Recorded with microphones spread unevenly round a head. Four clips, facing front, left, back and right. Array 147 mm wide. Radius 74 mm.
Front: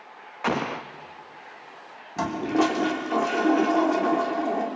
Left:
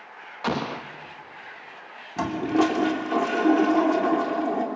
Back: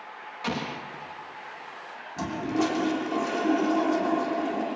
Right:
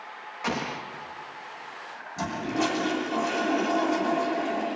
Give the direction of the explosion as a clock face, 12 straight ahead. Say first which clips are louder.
Left 3 dB, front 6 dB; 11 o'clock.